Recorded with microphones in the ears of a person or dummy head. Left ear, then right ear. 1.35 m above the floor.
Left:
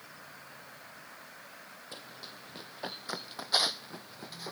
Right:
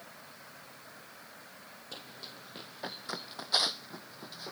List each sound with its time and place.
1.9 s running footsteps: centre (ahead or behind); by 4.5 s 20° left (ahead or behind)